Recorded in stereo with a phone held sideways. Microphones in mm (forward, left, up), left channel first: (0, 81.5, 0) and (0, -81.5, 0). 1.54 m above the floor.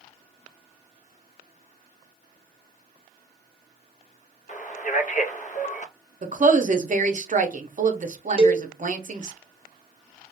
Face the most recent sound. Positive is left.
turn(degrees=-35)  # may be behind; listen again after turning